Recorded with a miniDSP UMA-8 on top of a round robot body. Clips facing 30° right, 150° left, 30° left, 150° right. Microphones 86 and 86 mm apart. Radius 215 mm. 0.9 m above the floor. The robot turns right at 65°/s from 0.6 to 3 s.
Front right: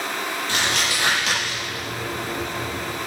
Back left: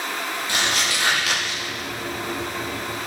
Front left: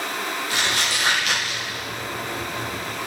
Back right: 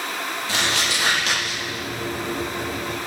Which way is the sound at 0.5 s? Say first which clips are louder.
Even, back right 2 dB; 135° right.